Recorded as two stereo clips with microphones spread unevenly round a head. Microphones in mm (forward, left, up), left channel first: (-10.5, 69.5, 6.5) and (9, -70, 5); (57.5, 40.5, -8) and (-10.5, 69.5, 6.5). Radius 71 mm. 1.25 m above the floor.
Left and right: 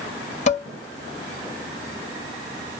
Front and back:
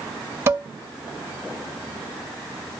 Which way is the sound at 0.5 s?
120° left.